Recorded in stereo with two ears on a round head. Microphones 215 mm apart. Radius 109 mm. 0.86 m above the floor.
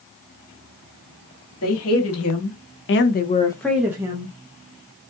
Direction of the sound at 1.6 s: 65° left (ahead or behind).